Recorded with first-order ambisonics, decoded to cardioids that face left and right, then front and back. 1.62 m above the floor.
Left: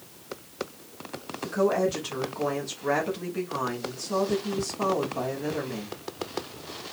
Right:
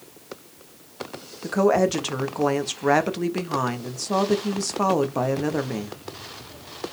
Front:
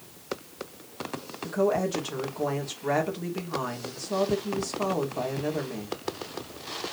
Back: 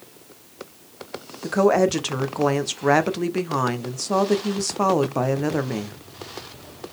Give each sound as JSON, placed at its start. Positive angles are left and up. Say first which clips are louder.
{"t": 1.4, "sound": "a woman speaking", "louder": "right 5 dB, back 8 dB", "azimuth_deg": -150, "distance_m": 0.9}